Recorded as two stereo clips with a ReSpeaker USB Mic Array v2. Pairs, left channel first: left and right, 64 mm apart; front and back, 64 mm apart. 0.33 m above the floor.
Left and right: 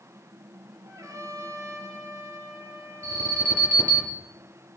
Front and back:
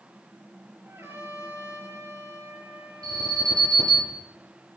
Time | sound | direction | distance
0.8 | a trumpet | 130° right | 7.5 m
3.0 | an alarm | 160° left | 6 m